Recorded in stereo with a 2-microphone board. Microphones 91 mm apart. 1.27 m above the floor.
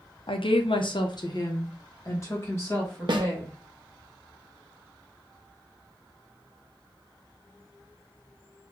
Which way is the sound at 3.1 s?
60° right (ahead or behind).